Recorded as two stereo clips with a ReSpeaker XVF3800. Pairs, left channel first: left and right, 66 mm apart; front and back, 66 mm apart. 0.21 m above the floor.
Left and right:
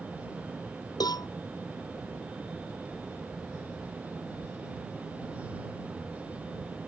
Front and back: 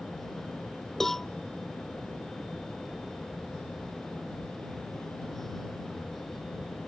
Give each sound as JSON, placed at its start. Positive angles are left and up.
{"t": 1.0, "sound": "a cowbell", "azimuth_deg": 85}